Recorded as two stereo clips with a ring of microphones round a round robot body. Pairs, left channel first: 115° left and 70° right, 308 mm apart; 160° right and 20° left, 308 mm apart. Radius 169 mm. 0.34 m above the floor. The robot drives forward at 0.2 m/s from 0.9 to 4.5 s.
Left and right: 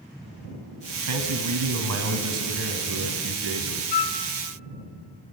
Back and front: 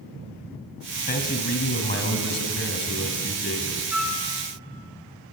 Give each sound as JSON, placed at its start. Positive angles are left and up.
{"t": 1.1, "sound": "a man speaking", "azimuth_deg": -95, "distance_m": 2.0}
{"t": 3.9, "sound": "a flute", "azimuth_deg": 110, "distance_m": 0.7}